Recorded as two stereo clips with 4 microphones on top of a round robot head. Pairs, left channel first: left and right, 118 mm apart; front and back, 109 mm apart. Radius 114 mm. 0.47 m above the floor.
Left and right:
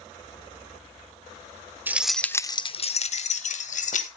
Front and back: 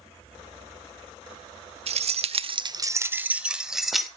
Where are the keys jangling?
165° right, 0.9 m; by 4.1 s 90° left, 1.9 m.